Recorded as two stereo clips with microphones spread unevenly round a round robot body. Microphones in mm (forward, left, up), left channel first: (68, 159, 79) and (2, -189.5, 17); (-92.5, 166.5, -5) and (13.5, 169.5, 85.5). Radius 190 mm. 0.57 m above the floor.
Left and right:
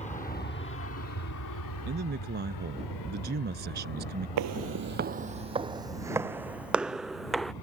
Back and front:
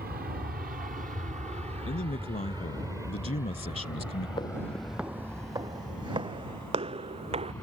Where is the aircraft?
5° left; by 7.6 s 115° left.